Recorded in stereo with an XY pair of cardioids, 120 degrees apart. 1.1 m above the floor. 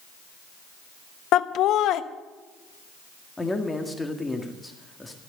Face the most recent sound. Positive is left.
turn(degrees=15)